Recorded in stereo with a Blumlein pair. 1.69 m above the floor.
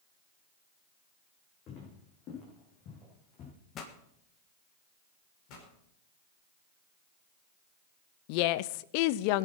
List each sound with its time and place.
1.7 s footsteps: 35° left, 6.5 m
3.8 s a pop: 30° left, 1.6 m
5.5 s a pop: 40° left, 4.5 m
8.3 s a woman speaking: 45° left, 0.6 m